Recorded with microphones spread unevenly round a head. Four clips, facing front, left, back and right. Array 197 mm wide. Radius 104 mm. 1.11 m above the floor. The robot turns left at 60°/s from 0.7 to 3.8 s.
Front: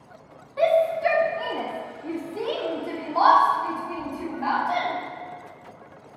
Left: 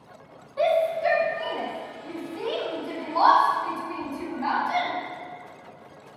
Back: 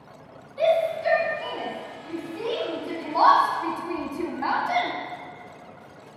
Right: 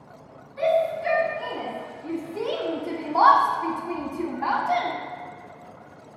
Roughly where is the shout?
Ahead left.